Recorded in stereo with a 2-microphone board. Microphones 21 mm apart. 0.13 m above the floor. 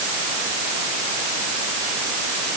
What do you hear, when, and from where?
Only background noise.